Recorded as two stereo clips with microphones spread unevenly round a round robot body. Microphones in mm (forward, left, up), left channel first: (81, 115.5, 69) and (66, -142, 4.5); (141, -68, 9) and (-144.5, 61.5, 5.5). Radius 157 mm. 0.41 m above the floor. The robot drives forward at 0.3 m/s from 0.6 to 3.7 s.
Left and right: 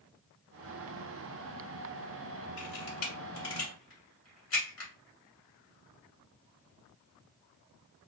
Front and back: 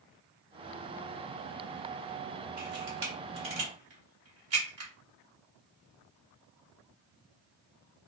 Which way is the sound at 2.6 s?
105° left.